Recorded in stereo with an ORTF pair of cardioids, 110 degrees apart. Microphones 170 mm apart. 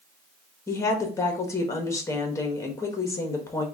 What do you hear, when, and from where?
0.7 s a woman speaking: 20° left, 1.2 m